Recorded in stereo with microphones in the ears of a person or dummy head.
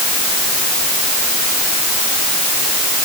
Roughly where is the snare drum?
No snare drum in this recording.